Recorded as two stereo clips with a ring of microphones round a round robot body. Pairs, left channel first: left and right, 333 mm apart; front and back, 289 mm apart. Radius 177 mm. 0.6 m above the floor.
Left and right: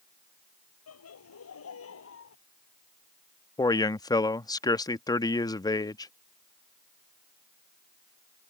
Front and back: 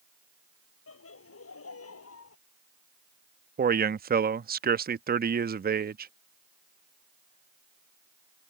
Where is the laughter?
40° left; by 2.4 s 35° left.